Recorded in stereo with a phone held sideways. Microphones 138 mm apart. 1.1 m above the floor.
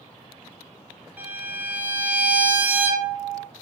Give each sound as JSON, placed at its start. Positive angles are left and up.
{"t": 1.2, "sound": "a violin", "side_deg": -15, "distance_m": 0.7}